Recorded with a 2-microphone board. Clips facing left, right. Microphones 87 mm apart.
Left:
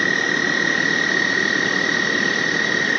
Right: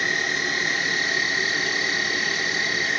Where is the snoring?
No snoring in this recording.